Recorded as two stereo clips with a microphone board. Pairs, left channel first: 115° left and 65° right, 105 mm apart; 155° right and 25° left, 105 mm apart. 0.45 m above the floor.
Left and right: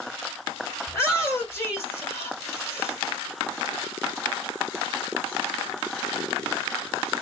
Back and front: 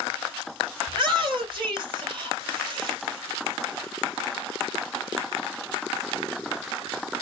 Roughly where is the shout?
Ahead left.